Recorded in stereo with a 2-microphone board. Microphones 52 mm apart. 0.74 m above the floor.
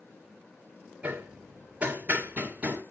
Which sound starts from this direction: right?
Hammering, at 1.0 s.